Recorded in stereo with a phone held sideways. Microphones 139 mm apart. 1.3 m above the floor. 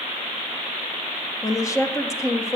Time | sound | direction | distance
1.4 | a woman speaking | 20° left (ahead or behind) | 0.9 m